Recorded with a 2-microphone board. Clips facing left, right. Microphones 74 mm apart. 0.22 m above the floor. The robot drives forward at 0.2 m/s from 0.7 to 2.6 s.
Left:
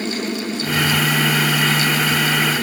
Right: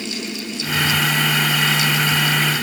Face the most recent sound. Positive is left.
No sound to turn to.